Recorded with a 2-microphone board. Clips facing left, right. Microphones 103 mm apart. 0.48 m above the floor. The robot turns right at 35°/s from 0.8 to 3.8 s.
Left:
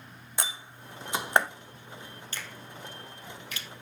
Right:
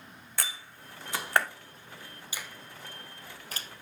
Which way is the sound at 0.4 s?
20° left (ahead or behind).